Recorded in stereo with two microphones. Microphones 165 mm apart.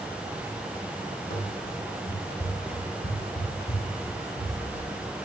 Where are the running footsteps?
65° left (ahead or behind), 3.5 m; by 4.9 s 70° left (ahead or behind), 6.5 m.